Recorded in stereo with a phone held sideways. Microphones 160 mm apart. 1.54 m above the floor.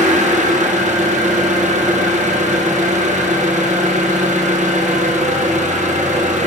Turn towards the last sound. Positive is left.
turn(degrees=-50)  # may be behind; listen again after turning